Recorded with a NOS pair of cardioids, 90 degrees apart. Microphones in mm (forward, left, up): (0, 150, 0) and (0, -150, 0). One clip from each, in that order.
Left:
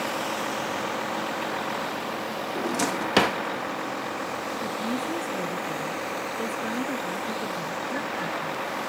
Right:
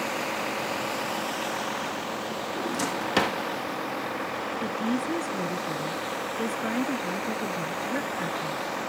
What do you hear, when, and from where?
0.0 s a vehicle: 10° left; by 8.9 s straight ahead
2.5 s a drawer: 15° left
4.6 s a woman speaking: 25° right